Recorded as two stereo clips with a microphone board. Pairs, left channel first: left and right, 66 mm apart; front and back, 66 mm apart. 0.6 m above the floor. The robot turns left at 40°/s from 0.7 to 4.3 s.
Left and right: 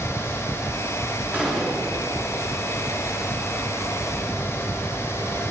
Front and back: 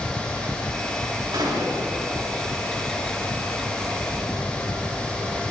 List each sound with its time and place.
1.3 s a gunshot: 160° right, 7 m; by 2.0 s 175° left, 7 m